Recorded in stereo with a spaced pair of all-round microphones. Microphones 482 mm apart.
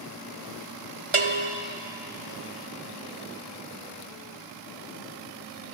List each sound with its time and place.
1.1 s a bell: 85° right, 1.4 m